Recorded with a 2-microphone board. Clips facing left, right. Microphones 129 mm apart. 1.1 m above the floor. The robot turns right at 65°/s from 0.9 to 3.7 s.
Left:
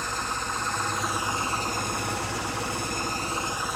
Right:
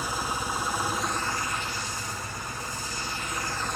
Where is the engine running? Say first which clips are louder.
Right 1 dB; 10° right, 1.0 m; by 3.8 s 175° left, 1.0 m.